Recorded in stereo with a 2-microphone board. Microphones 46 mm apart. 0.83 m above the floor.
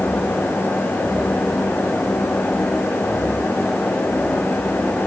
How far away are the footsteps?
I don't hear footsteps.